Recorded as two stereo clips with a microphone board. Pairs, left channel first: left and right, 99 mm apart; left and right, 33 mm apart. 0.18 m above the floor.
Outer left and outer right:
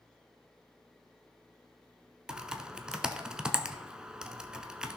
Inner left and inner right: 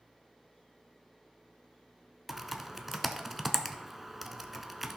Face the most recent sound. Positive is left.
turn(degrees=-5)  # may be behind; listen again after turning